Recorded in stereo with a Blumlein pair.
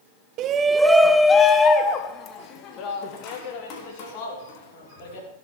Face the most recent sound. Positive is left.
turn(degrees=45)